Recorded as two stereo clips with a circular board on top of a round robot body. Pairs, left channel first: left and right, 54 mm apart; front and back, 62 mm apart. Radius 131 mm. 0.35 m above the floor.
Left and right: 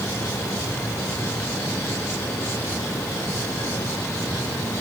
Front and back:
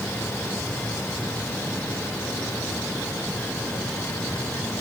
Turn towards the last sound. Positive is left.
No sound to turn to.